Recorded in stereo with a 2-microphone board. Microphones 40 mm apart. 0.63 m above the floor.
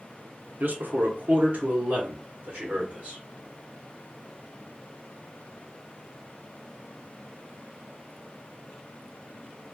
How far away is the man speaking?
About 1.0 m.